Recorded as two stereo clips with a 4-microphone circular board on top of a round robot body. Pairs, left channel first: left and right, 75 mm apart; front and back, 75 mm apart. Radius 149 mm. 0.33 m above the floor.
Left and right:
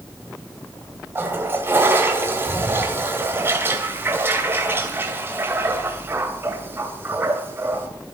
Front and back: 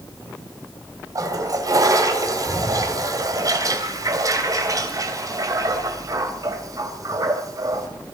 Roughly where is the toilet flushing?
Behind right.